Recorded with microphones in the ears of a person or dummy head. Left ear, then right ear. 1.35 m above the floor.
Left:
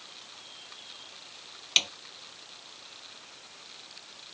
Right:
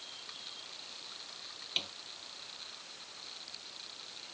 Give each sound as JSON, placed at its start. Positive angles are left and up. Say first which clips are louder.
{"t": 1.8, "sound": "a snare drum", "louder": "left 11 dB", "side_deg": 75}